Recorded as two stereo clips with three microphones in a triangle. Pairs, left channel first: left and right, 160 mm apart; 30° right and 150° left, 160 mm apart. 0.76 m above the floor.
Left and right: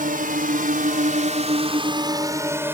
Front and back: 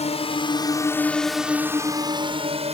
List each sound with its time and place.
0.0 s a drone: 70° right; by 2.8 s 165° right